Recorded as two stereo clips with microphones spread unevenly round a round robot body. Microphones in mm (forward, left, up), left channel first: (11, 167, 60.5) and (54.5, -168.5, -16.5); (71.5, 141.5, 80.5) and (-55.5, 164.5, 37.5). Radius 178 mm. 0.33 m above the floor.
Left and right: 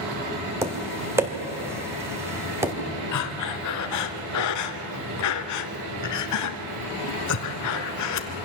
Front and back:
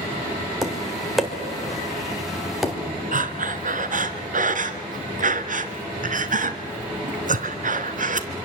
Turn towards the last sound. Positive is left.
turn(degrees=145)